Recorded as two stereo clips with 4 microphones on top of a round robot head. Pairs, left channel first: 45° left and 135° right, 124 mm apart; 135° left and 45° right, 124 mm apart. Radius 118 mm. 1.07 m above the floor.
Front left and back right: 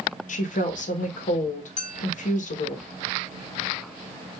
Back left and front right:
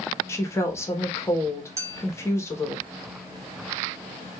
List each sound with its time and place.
0.3 s a woman speaking: 65° left, 1.2 m
1.8 s a clink: 20° left, 1.6 m